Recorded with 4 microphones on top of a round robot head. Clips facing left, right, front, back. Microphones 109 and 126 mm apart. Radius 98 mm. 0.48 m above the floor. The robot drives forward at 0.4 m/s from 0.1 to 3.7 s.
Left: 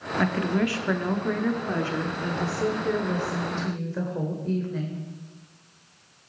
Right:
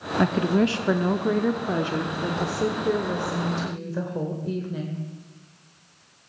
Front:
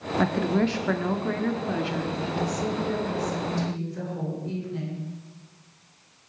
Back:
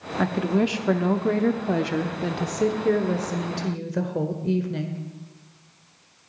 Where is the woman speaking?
85° right, 0.7 m; by 5.0 s 170° right, 1.5 m.